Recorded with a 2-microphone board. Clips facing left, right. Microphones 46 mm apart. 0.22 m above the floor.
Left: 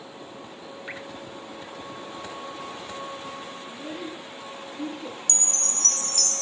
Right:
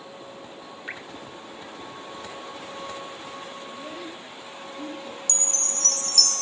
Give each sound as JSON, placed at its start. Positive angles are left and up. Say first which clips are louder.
{"t": 0.9, "sound": "dripping", "louder": "right 1 dB", "side_deg": 0, "distance_m": 2.0}
{"t": 3.7, "sound": "a child speaking", "louder": "left 1 dB", "side_deg": 45, "distance_m": 7.0}
{"t": 5.3, "sound": "a chime", "louder": "right 1 dB", "side_deg": 40, "distance_m": 0.5}